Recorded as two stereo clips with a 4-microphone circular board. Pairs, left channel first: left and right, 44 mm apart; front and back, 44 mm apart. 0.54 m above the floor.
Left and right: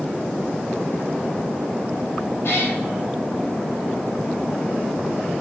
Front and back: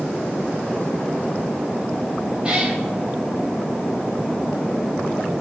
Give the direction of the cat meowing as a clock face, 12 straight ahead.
8 o'clock.